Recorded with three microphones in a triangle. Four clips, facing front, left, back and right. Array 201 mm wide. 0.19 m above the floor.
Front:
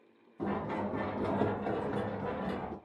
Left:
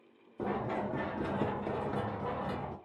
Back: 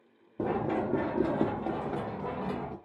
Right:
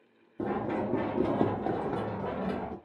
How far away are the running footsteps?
About 0.8 m.